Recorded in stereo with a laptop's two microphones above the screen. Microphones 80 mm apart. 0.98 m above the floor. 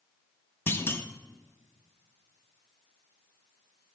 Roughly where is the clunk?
Left.